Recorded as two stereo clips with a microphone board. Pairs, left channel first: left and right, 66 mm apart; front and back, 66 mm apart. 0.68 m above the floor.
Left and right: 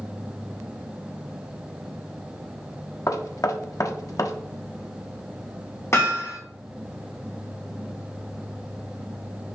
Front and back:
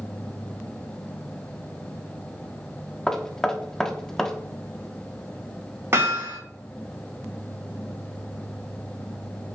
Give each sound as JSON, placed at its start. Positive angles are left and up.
{"t": 3.1, "sound": "knocking", "azimuth_deg": 80, "distance_m": 0.8}
{"t": 5.9, "sound": "hammering", "azimuth_deg": 130, "distance_m": 4.0}